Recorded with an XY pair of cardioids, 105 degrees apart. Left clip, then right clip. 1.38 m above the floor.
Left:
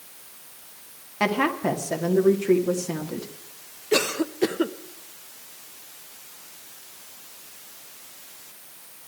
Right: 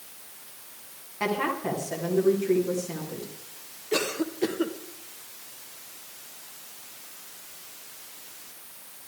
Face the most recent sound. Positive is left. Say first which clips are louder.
# left 4 dB
turn(degrees=35)